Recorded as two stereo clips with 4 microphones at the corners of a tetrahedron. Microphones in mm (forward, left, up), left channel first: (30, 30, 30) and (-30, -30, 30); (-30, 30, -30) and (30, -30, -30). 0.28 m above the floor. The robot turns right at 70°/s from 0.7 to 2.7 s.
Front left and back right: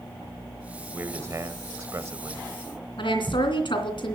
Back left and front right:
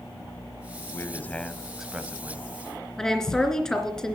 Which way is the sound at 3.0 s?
50° left.